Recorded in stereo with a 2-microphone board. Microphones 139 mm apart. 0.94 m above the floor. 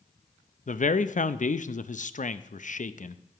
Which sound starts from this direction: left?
A man speaking, at 0.7 s.